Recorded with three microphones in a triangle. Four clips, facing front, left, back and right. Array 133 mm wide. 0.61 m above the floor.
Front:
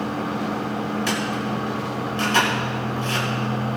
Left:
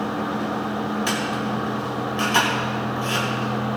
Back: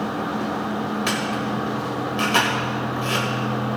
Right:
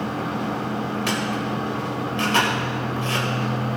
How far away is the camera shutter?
About 3 m.